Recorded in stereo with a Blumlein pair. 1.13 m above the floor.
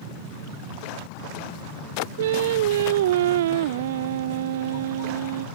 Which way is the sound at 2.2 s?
55° right.